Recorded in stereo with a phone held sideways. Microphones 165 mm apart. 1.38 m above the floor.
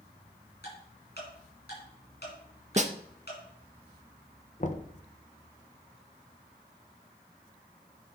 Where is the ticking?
70° left (ahead or behind), 6.5 m.